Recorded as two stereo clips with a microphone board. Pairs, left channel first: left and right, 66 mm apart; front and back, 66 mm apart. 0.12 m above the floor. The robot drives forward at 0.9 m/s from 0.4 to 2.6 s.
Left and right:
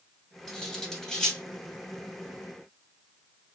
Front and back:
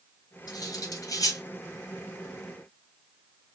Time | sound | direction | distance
0.5 | cutlery clinking | 10° left | 2.5 m